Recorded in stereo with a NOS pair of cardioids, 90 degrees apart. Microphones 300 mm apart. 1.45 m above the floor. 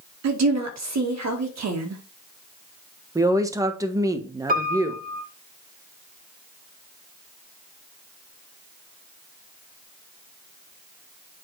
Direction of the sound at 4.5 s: 30° right.